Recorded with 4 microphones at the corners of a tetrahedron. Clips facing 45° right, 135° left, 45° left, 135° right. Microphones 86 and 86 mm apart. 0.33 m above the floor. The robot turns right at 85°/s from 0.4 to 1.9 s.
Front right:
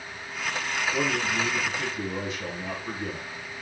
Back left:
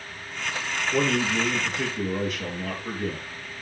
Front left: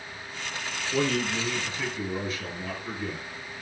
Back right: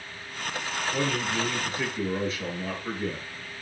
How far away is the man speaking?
About 6 m.